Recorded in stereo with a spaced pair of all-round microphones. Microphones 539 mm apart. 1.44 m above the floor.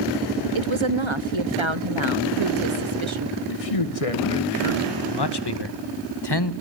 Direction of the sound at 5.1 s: 45° left (ahead or behind).